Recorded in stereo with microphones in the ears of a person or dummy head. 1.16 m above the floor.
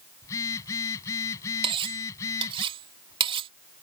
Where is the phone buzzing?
15° left (ahead or behind).